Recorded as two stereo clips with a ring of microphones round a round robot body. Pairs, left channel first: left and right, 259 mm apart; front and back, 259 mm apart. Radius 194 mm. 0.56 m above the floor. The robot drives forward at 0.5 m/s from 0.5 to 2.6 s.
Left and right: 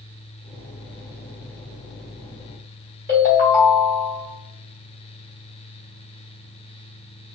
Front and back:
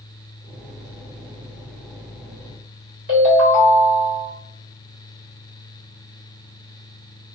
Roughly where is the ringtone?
Behind right.